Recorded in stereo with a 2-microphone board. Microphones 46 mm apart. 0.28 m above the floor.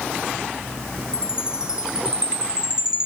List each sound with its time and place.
1.1 s a chime: 20° right (ahead or behind), 0.5 m